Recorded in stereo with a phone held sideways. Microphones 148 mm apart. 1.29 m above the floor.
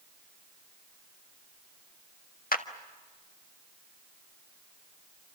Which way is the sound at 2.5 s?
80° left.